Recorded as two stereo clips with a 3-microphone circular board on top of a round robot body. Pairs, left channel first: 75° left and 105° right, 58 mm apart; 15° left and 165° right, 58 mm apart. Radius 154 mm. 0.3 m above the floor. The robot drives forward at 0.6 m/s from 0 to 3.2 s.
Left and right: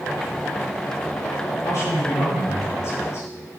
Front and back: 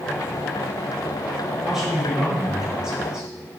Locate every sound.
1.6 s a man speaking: 115° left, 7 m; by 3.3 s 120° left, 7.5 m